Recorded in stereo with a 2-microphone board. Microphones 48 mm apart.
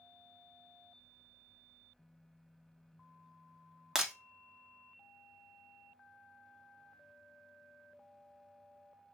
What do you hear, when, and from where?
4.0 s breaking glass: 10° right (ahead or behind), 0.7 m